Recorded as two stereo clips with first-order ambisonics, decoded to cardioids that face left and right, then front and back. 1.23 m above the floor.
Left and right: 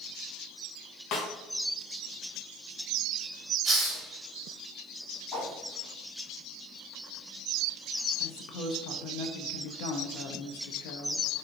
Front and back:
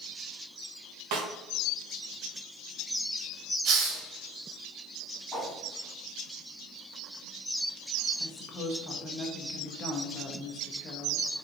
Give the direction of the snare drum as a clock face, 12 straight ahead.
7 o'clock.